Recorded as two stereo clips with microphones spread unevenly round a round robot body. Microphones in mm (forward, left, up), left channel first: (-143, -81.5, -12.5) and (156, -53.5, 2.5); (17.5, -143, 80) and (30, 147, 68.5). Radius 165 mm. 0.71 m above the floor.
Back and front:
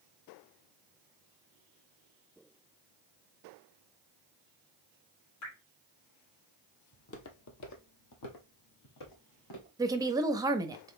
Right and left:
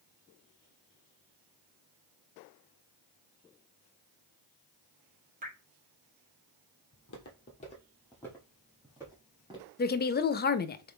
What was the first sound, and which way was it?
Dripping, 145° left.